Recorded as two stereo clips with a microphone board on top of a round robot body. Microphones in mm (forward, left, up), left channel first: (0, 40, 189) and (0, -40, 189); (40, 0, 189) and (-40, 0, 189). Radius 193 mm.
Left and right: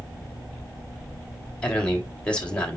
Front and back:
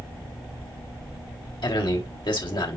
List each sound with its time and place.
1.6 s a man speaking: 15° left, 3 m